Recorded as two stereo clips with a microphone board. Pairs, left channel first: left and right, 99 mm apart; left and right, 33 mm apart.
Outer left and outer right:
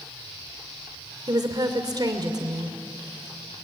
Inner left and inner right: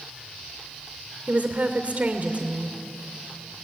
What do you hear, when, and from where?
1.3 s a woman speaking: 40° right (ahead or behind), 2.5 m